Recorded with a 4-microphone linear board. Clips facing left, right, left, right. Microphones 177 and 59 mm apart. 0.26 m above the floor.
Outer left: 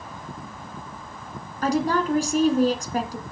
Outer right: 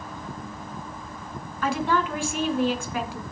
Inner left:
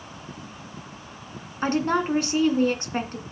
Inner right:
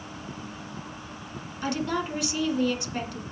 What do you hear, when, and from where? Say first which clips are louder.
1.6 s a woman speaking: outer left 3 dB, inner left 6 dB; 35° left (ahead or behind), 2.5 m